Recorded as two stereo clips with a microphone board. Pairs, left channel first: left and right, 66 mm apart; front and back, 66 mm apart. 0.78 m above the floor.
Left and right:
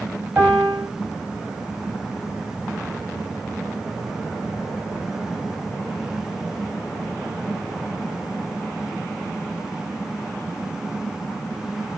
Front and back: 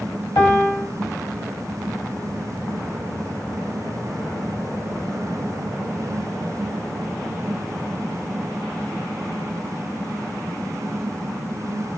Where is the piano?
30° right, 6.5 m.